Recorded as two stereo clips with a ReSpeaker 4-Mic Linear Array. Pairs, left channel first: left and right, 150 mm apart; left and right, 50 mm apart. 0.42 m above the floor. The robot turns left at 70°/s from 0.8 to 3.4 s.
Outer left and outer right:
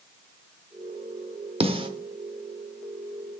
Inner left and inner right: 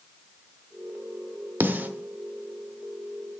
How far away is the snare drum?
About 0.7 m.